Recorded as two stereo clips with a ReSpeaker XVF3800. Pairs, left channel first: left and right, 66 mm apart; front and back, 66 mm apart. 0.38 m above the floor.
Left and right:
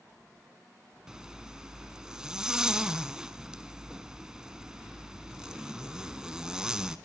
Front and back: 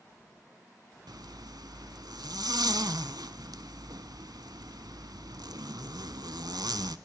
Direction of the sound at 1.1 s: 170° right.